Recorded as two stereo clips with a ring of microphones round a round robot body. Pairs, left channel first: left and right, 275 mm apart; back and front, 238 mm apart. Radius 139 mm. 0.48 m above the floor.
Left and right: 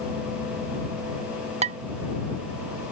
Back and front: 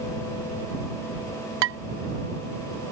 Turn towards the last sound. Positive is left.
turn(degrees=-25)